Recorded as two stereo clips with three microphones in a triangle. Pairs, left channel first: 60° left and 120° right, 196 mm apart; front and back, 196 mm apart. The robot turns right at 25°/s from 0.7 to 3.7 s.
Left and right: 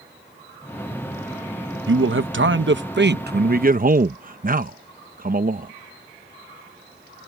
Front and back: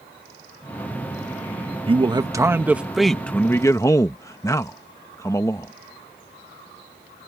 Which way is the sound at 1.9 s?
120° right.